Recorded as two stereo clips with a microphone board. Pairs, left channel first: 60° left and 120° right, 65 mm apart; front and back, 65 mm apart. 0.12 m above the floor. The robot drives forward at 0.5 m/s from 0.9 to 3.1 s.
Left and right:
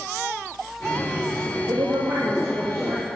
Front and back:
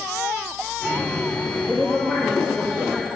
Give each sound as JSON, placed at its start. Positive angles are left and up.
{"t": 1.7, "sound": "a woman speaking", "azimuth_deg": -95, "distance_m": 3.0}